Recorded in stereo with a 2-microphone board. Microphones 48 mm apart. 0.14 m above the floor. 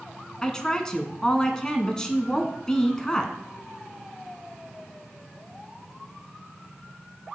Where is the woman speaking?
15° left (ahead or behind), 1.1 m.